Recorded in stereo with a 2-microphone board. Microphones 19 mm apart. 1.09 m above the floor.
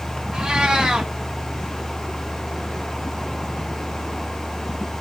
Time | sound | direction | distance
0.3 | a cat meowing | 50° right (ahead or behind) | 1.5 m